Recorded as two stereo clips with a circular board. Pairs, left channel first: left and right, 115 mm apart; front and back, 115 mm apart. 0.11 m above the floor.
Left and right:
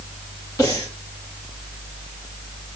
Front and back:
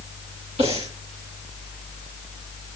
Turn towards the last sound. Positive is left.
turn(degrees=150)